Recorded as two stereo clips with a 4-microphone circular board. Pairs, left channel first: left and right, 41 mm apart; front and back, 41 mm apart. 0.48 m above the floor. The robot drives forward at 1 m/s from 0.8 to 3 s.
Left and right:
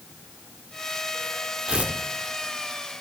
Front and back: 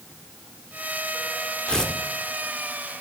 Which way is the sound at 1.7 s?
55° right.